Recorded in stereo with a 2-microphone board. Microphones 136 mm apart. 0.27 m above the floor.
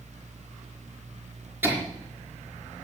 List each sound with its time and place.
1.6 s laughter: 15° right (ahead or behind), 4 m